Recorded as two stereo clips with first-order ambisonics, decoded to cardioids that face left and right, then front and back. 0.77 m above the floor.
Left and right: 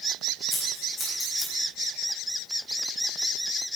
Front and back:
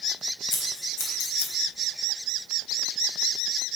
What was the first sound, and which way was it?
Scissors, 10° left.